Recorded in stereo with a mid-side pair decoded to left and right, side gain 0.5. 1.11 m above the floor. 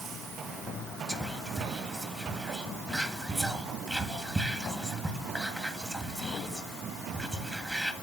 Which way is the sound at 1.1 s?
5° right.